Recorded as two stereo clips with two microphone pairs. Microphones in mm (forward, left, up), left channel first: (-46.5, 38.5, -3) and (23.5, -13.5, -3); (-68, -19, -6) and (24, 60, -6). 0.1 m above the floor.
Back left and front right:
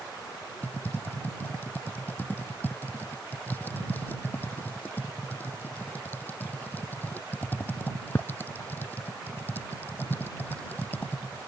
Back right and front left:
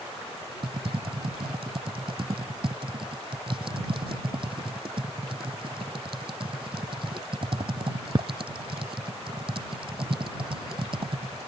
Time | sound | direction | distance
0.6 | typing on a keyboard | 80° left | ?